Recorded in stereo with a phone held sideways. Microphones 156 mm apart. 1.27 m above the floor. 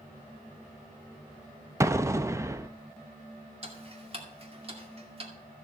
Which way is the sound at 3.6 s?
40° right (ahead or behind).